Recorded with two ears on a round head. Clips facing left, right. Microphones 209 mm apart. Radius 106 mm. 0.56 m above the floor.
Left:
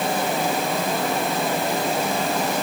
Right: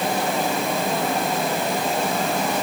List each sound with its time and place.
Only background noise.